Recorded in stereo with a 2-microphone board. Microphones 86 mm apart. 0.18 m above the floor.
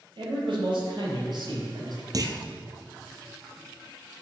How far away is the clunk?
About 1.1 m.